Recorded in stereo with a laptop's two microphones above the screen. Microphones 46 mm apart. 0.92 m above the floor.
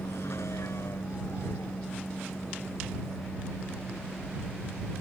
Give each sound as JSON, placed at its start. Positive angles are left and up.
{"t": 0.0, "sound": "a vehicle", "side_deg": 70}